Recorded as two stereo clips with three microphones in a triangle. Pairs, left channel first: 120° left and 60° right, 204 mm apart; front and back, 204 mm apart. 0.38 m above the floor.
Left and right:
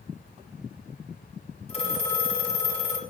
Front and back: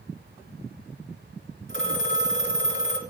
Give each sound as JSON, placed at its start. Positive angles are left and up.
{"t": 1.7, "sound": "a phone ringing", "azimuth_deg": 180, "distance_m": 2.5}